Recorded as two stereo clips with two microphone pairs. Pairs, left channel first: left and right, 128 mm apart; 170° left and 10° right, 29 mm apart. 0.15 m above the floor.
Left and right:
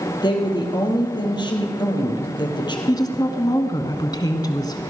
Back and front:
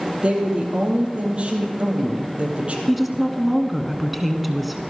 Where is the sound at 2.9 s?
75° left, 1.2 m.